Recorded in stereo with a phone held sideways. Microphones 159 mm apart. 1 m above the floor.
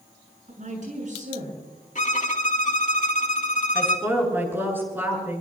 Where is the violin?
55° left (ahead or behind), 1.6 m.